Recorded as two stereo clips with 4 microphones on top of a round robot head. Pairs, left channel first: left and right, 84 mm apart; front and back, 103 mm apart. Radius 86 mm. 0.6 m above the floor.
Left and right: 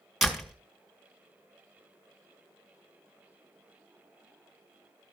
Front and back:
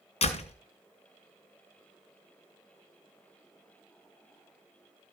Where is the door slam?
Straight ahead, 2 m.